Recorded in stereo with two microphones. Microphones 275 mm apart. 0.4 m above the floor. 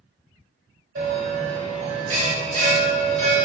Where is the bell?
55° right (ahead or behind), 0.9 m.